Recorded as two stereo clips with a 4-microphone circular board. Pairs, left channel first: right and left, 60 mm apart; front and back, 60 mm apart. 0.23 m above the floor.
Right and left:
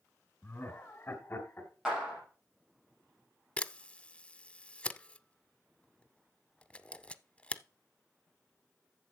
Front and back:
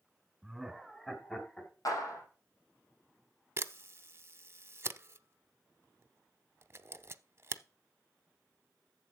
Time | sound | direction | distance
0.4 | laughter | 95° right | 1.9 m
1.9 | a clap | 5° left | 5.5 m
3.6 | a camera shutter | 155° right | 0.5 m